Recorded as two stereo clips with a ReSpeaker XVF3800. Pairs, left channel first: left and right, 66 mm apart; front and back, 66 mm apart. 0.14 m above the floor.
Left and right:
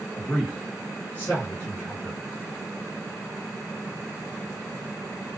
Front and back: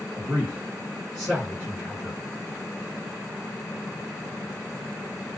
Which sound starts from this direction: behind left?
A man speaking, at 0.1 s.